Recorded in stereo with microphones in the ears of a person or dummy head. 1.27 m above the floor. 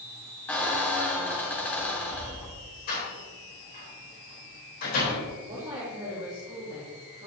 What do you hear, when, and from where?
0.5 s a squeak: 10° left (ahead or behind), 1.9 m
2.9 s a door slam: 50° left (ahead or behind), 4 m
5.4 s a woman speaking: 30° right (ahead or behind), 3 m